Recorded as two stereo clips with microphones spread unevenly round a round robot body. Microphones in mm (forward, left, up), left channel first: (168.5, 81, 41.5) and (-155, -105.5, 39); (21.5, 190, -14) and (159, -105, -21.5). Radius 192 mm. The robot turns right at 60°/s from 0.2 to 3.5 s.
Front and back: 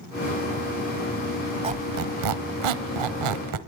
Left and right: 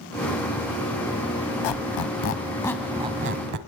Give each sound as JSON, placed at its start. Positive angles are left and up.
{"t": 1.6, "sound": "a squeak", "azimuth_deg": 135, "distance_m": 1.2}